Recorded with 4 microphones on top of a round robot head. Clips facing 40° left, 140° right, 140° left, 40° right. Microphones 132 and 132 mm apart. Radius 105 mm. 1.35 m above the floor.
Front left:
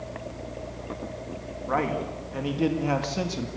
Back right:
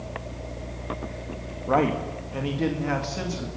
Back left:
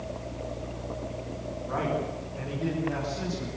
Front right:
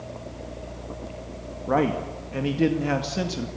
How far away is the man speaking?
About 2 m.